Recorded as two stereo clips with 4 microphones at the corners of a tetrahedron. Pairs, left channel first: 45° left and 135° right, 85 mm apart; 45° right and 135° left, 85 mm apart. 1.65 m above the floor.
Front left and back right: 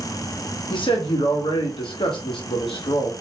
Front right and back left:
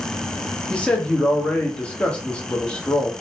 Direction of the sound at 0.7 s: 30° left.